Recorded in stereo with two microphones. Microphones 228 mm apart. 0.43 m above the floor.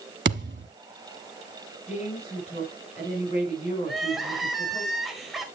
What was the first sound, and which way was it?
A thud, 55° right (ahead or behind).